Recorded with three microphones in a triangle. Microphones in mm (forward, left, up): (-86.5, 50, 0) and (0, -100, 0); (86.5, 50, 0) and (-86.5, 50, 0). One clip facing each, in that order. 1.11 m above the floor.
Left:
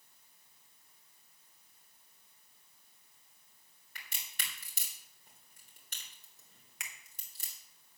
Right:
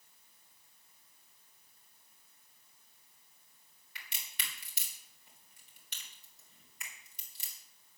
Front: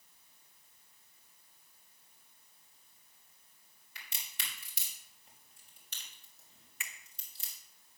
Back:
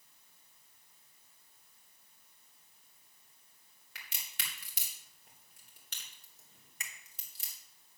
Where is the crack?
165° left, 3.5 m.